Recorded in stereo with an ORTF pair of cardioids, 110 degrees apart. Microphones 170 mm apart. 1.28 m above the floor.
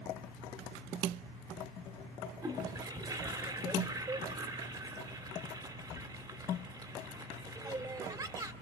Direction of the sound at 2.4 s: 25° right.